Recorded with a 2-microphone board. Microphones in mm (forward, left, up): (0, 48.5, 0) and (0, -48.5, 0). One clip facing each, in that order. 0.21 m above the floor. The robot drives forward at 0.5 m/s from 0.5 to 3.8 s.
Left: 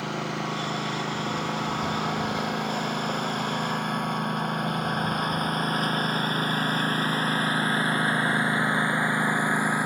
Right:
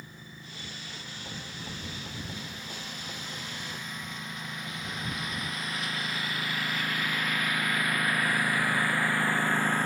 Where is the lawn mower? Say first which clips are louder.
Left 19 dB; 80° left; by 9.9 s 10° left (ahead or behind).